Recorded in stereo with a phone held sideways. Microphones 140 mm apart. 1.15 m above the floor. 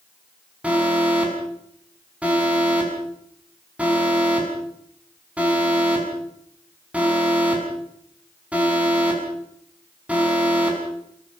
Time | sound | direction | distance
0.6 | an alarm | 10° right (ahead or behind) | 6.5 m